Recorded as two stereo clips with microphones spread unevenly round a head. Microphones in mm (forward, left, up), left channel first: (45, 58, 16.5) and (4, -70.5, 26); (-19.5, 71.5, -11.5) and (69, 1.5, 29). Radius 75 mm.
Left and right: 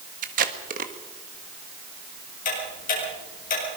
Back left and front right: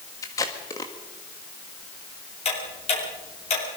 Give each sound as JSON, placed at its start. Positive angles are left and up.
{"t": 0.2, "sound": "tape being pulled", "azimuth_deg": -145, "distance_m": 1.5}
{"t": 2.5, "sound": "ticking", "azimuth_deg": 110, "distance_m": 8.0}